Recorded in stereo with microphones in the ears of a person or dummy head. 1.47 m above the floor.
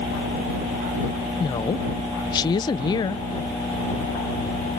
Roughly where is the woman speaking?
Left.